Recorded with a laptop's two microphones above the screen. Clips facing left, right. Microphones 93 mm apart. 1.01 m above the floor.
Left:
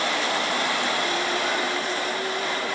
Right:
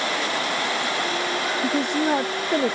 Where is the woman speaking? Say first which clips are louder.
Right 5 dB; 65° right (ahead or behind).